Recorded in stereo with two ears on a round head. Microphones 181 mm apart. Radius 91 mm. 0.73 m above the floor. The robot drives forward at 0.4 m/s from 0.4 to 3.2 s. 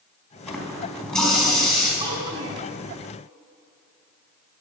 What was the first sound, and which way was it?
A running tap, 5° left (ahead or behind).